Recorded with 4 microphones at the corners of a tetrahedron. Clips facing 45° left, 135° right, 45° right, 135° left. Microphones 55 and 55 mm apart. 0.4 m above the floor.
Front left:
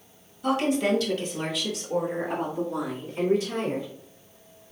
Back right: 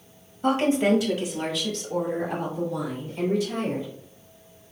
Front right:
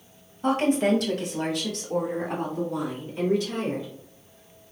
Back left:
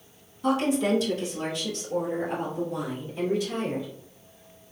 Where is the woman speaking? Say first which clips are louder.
Back right 3 dB, front right 2 dB; 85° right, 1.8 m; by 3.9 s 5° right, 4.5 m.